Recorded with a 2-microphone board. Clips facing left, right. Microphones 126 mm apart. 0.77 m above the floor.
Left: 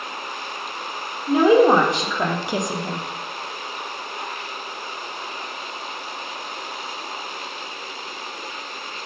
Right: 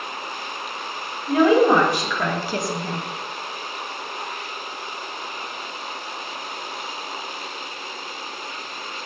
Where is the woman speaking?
25° left (ahead or behind), 1.8 m; by 3.0 s 10° left (ahead or behind), 0.6 m.